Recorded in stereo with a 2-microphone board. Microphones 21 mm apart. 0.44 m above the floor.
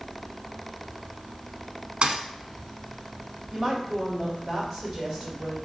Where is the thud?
55° right (ahead or behind), 0.6 m.